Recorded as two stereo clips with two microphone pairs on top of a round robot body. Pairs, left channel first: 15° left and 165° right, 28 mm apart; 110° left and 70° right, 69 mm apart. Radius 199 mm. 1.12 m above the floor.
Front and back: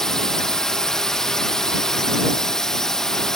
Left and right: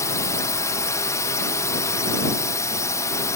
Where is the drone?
80° left.